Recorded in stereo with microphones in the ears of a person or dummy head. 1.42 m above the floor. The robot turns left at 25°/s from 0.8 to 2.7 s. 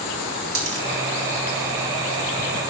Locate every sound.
0.6 s a dropped coin: 65° right (ahead or behind), 2.5 m